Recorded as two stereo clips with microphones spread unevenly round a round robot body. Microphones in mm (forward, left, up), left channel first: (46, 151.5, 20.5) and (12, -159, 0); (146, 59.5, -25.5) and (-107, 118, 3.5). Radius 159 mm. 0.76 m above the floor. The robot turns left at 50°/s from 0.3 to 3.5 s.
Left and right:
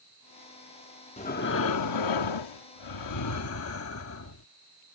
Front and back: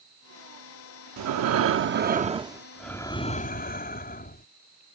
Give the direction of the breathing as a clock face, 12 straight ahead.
7 o'clock.